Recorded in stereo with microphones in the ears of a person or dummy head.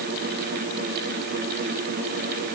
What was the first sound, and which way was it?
Only background noise.